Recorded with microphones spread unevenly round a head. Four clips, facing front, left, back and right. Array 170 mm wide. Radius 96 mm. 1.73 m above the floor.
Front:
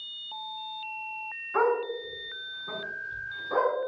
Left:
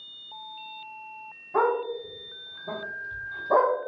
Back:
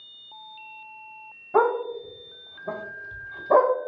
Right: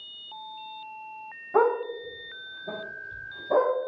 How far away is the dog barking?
About 2.5 m.